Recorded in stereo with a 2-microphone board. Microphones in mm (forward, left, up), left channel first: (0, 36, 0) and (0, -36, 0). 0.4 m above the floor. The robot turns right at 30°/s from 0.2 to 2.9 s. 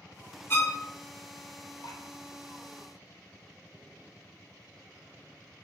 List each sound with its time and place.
0.5 s a violin: 30° left (ahead or behind), 0.5 m; by 0.8 s 35° left (ahead or behind), 0.5 m
1.8 s dripping: 75° left (ahead or behind), 0.6 m; by 2.0 s 70° left (ahead or behind), 0.6 m